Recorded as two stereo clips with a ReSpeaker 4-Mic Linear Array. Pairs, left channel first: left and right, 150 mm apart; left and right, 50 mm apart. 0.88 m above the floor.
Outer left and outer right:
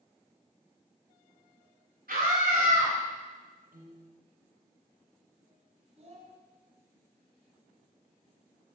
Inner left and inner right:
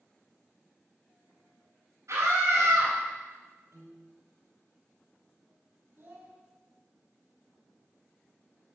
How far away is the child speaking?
About 4.5 m.